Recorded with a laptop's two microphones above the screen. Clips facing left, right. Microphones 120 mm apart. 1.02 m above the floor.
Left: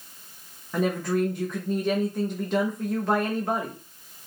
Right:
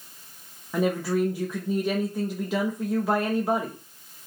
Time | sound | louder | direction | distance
0.7 | a woman speaking | right 1 dB | 5° right (ahead or behind) | 0.9 m